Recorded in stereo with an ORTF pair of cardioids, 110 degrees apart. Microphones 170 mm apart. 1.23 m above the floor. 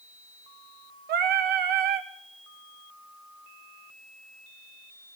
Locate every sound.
1.1 s singing: 70° right, 1.4 m